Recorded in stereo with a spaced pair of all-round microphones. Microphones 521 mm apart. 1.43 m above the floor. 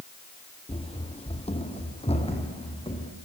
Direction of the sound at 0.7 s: 10° left (ahead or behind).